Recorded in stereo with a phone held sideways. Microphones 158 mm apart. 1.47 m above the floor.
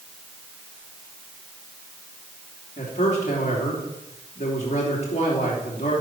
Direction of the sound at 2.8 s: 45° left (ahead or behind).